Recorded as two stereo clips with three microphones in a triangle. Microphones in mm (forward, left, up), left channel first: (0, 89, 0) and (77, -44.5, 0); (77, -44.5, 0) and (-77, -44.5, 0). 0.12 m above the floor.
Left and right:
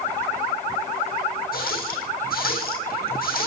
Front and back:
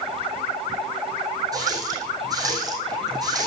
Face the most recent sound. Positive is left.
turn(degrees=115)